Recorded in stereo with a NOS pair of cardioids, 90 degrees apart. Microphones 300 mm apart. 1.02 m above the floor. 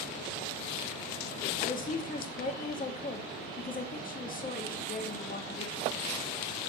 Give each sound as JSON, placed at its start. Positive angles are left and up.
{"t": 1.6, "sound": "a woman speaking", "azimuth_deg": 30, "distance_m": 2.0}